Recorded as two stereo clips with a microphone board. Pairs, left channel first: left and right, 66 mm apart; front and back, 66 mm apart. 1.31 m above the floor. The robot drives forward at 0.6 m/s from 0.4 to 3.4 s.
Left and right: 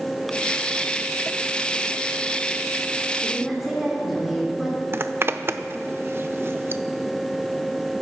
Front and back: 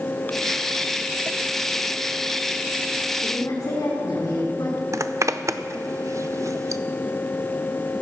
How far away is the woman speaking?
About 3.5 m.